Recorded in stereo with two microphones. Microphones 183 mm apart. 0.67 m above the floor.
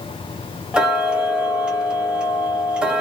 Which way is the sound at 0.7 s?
5° right (ahead or behind).